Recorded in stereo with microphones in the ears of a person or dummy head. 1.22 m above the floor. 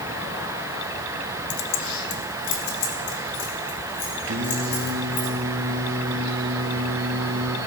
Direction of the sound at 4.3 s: 75° right (ahead or behind).